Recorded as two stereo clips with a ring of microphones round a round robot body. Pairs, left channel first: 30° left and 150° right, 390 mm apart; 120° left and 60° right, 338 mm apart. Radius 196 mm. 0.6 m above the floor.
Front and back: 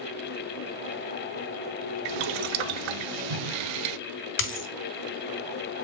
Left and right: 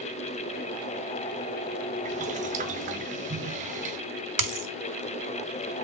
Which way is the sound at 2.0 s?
130° right.